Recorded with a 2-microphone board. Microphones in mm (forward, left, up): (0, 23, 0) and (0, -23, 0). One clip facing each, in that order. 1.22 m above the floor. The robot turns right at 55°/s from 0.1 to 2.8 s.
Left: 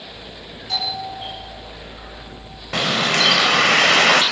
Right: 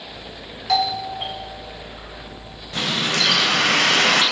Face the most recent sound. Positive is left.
turn(degrees=80)